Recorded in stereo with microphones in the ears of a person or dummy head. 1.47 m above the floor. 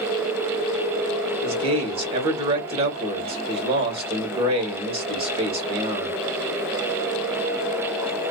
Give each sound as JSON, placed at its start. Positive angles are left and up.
{"t": 1.4, "sound": "a man speaking", "side_deg": -35, "distance_m": 1.2}